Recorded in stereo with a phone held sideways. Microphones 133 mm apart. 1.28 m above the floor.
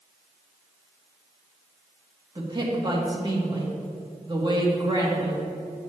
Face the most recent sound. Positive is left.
turn(degrees=-35)  # may be behind; listen again after turning